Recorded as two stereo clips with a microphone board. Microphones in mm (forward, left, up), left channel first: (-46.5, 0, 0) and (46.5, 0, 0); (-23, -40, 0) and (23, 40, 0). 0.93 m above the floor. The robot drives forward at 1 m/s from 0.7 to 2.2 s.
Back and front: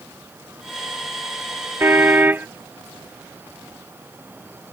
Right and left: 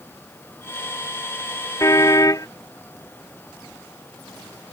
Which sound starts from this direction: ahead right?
A car horn, at 1.8 s.